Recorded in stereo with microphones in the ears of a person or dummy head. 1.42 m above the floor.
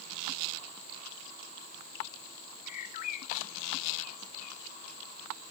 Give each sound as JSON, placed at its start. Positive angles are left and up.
{"t": 2.7, "sound": "a bird", "side_deg": 45, "distance_m": 0.7}